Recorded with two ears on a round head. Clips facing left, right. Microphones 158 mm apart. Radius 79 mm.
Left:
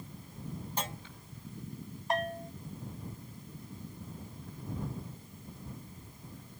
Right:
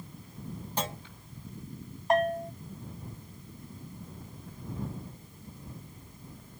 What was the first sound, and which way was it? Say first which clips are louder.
A clunk: right 5 dB; 60° right (ahead or behind).